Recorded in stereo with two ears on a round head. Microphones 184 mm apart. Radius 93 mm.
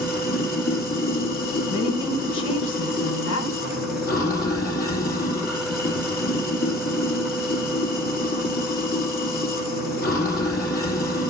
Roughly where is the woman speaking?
Left.